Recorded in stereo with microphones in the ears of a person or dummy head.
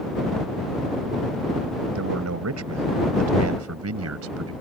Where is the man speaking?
75° right (ahead or behind); by 4.5 s 80° right.